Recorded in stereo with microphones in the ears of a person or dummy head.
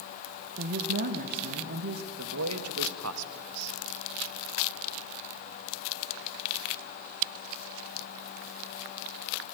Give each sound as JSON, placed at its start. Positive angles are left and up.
{"t": 0.6, "sound": "a woman speaking", "side_deg": -55, "distance_m": 1.1}
{"t": 2.2, "sound": "a man speaking", "side_deg": -85, "distance_m": 1.3}